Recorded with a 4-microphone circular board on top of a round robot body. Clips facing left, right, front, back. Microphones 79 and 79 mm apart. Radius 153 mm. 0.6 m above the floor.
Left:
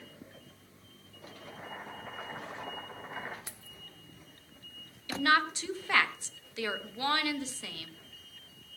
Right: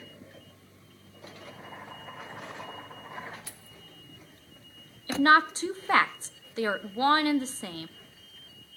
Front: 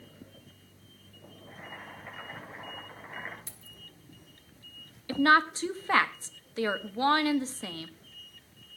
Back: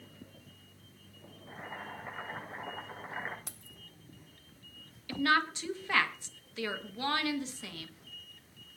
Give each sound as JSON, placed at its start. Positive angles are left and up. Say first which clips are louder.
{"t": 1.5, "sound": "boiling", "louder": "left 2 dB, back 2 dB", "azimuth_deg": 120, "distance_m": 6.5}
{"t": 3.5, "sound": "keys jangling", "louder": "right 1 dB, even", "azimuth_deg": 160, "distance_m": 1.3}
{"t": 5.1, "sound": "a woman speaking", "louder": "right 6 dB, front 6 dB", "azimuth_deg": -45, "distance_m": 1.3}